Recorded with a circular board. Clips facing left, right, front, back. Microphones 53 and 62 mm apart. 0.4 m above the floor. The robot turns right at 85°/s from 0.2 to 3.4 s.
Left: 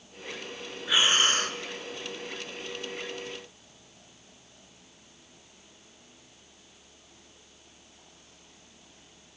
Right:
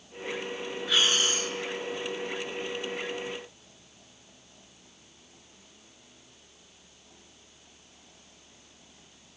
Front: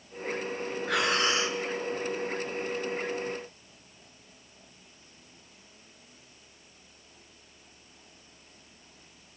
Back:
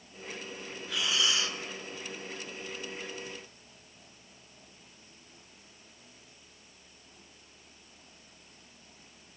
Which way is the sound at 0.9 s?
10° left.